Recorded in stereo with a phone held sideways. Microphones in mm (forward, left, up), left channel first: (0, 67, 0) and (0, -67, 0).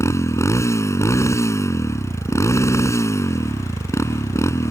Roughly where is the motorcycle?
Left.